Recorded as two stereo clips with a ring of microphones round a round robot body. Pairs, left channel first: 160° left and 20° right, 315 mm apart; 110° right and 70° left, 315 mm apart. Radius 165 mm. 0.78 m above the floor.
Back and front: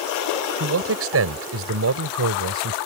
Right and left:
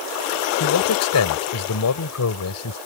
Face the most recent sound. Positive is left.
turn(degrees=-70)